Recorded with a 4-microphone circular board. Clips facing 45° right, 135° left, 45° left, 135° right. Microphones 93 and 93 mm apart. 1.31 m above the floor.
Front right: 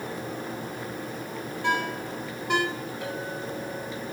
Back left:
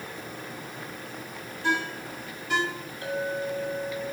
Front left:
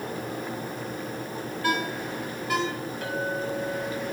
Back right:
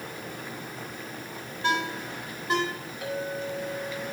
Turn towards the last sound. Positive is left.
turn(degrees=-50)